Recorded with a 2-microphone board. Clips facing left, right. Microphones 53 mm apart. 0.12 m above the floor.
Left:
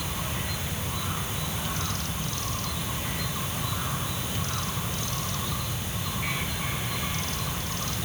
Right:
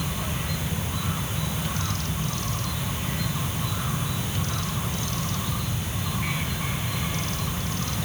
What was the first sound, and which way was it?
Only background noise.